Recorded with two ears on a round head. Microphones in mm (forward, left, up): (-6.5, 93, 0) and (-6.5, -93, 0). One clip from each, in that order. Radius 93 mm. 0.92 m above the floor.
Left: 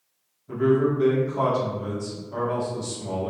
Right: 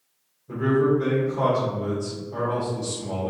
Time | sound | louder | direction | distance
0.5 | a man speaking | even | 40° left (ahead or behind) | 1.2 m